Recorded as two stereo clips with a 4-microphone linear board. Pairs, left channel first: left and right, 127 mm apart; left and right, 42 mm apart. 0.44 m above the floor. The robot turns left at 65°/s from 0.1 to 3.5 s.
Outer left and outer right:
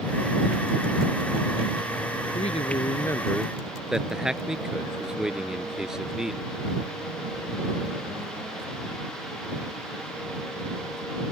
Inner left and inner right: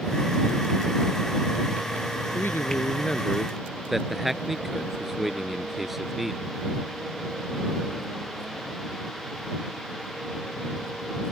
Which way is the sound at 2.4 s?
70° left.